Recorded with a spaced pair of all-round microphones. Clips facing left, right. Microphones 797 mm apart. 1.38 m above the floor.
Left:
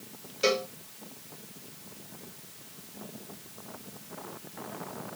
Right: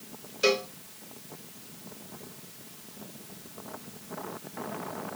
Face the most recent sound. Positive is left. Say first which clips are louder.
# right 2 dB
turn(degrees=0)  # may be behind; listen again after turning